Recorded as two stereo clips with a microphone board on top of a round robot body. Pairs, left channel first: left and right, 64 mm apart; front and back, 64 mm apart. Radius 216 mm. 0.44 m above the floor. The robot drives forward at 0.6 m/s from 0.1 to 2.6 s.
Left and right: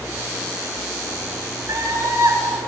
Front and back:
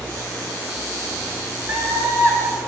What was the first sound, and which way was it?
A scream, 125° right.